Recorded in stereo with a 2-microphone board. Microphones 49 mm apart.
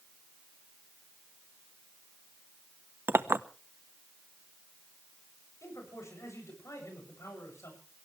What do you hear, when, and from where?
3.1 s a clink: 55° right (ahead or behind), 0.7 m
5.6 s a man speaking: 80° left, 8 m